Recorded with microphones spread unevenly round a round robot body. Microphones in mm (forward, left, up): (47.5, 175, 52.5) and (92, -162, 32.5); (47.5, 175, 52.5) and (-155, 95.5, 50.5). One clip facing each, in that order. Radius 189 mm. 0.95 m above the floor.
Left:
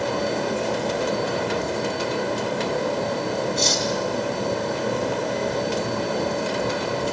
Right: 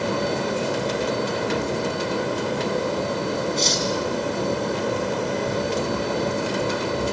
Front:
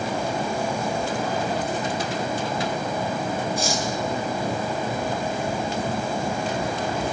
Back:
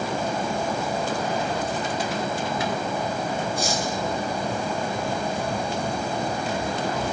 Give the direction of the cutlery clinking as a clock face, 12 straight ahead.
11 o'clock.